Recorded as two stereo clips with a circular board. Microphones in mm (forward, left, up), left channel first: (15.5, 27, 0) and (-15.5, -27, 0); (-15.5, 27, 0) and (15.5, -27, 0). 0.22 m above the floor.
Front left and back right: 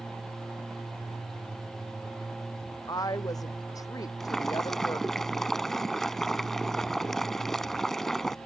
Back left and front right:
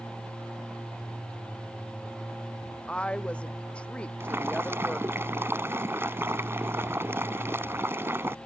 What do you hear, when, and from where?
2.9 s a woman speaking: 50° left
4.2 s boiling: 25° right